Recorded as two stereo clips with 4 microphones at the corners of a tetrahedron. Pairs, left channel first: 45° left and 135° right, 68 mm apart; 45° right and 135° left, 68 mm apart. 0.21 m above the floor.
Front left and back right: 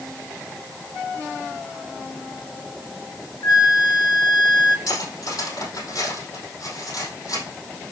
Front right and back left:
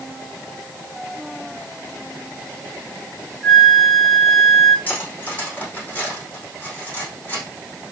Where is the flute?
45° left, 1.0 m.